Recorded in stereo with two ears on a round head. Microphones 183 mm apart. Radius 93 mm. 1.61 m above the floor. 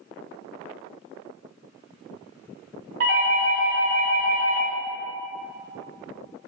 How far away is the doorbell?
About 1.1 m.